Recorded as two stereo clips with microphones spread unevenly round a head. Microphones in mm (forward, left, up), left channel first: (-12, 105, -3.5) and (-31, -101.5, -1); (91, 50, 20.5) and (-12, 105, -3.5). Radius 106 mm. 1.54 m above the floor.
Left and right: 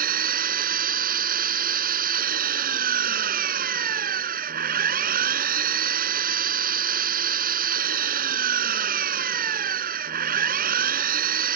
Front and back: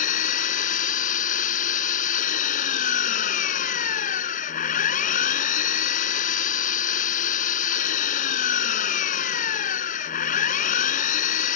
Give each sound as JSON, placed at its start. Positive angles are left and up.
{"t": 0.0, "sound": "an engine running", "azimuth_deg": -40}